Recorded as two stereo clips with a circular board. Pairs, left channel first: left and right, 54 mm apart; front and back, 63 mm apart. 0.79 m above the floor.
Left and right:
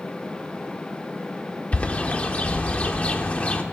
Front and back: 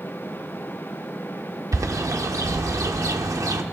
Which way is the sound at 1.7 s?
155° left.